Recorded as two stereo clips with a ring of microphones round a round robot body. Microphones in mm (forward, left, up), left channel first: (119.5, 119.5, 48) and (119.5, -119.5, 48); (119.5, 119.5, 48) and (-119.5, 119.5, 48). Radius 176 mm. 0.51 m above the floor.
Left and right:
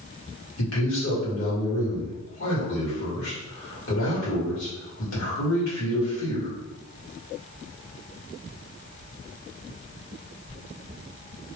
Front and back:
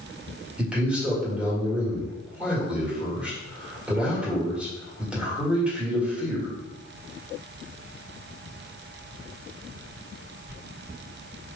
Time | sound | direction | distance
0.6 | a man speaking | 95° left | 1.8 m